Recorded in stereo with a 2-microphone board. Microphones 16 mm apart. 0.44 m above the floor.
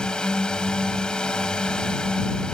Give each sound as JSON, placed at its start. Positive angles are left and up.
{"t": 0.0, "sound": "a drone", "side_deg": 55}